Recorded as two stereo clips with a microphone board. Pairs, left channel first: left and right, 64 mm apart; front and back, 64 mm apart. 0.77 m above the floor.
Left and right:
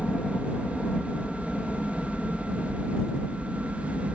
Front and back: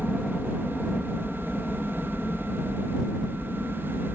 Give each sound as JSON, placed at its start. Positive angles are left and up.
{"t": 0.0, "sound": "a helicopter", "azimuth_deg": 80}